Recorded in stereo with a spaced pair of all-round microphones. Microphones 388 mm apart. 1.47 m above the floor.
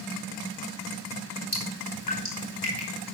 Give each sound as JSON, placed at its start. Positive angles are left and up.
{"t": 1.5, "sound": "dripping", "side_deg": 70, "distance_m": 4.5}